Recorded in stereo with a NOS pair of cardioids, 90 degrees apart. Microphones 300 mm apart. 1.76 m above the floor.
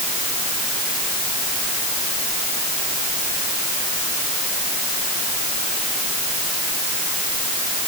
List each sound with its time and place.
Only background noise.